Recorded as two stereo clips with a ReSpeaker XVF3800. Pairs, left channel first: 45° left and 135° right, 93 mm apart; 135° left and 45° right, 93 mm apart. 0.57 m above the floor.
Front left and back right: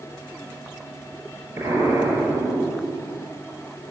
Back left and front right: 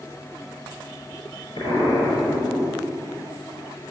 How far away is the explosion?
About 5.5 m.